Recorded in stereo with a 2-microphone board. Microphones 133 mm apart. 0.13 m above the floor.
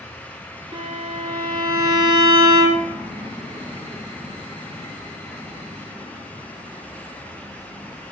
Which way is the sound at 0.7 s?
40° right (ahead or behind).